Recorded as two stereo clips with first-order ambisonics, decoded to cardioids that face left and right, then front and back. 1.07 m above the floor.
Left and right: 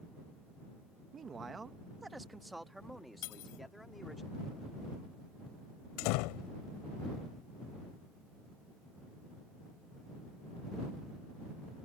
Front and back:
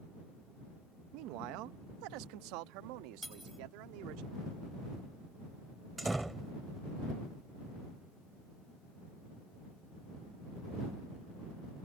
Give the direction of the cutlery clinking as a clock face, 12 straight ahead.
9 o'clock.